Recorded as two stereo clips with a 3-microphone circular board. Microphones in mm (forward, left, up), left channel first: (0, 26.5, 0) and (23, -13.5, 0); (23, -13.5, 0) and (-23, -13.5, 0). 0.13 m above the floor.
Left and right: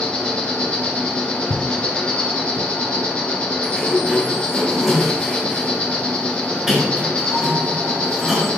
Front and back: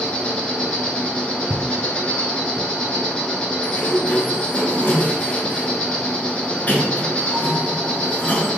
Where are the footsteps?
140° left, 0.6 m; by 2.7 s 45° left, 1.6 m.